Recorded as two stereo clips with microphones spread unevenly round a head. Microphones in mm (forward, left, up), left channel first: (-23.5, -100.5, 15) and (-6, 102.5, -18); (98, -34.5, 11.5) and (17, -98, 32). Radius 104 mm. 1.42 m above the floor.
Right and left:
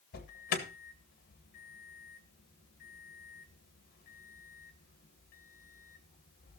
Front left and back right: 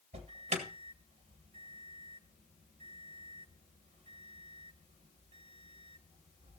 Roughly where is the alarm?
Behind right.